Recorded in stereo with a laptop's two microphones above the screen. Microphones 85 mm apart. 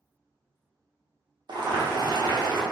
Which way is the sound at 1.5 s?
60° right (ahead or behind).